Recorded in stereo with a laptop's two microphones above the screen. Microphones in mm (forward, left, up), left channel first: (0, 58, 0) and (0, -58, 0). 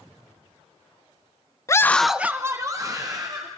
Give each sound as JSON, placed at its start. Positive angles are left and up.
{"t": 1.7, "sound": "a scream", "side_deg": 25, "distance_m": 0.7}